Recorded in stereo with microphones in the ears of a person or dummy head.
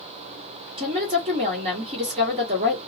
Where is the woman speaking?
35° right (ahead or behind), 1.4 m.